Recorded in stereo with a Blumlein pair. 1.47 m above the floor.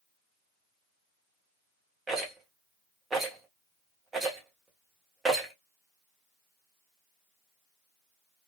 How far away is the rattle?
About 1.1 m.